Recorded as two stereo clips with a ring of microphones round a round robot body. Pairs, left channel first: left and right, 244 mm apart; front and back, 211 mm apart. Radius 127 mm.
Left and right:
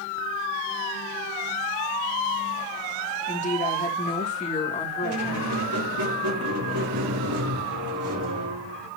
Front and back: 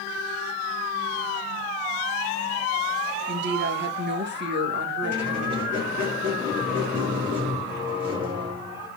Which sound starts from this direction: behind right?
A squeak, at 5.0 s.